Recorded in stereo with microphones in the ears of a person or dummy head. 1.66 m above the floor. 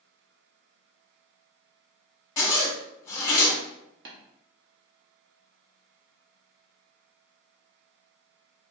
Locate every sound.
2.4 s a zipper: 25° left (ahead or behind), 0.9 m
4.0 s tapping: 55° right (ahead or behind), 0.9 m